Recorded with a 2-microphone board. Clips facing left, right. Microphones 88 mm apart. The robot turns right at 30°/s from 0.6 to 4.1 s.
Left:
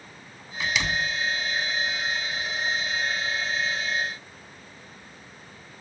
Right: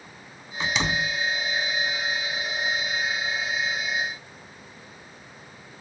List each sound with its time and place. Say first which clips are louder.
0.6 s a door slam: right 1 dB; 30° right (ahead or behind); by 1.2 s 35° right (ahead or behind)